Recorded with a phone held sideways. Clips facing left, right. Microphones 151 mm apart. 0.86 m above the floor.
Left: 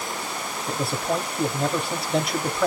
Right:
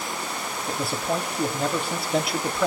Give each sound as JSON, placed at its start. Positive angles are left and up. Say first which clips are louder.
{"t": 0.7, "sound": "a man speaking", "louder": "left 1 dB", "side_deg": 0, "distance_m": 1.9}